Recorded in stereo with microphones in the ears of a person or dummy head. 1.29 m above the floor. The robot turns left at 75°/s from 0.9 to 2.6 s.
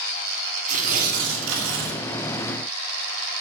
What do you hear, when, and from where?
0.7 s tearing paper: 45° right, 2.5 m; by 2.0 s 125° right, 2.5 m